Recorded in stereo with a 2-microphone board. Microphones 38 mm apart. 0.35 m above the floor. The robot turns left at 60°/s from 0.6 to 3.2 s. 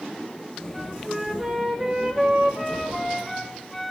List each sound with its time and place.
0.7 s a flute: 15° right (ahead or behind), 1.2 m; by 3.9 s 5° left (ahead or behind), 1.2 m